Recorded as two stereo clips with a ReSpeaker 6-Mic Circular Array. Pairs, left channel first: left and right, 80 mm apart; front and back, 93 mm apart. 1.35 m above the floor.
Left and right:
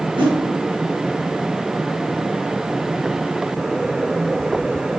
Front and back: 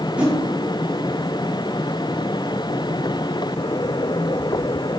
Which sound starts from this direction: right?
A whoosh, at 0.2 s.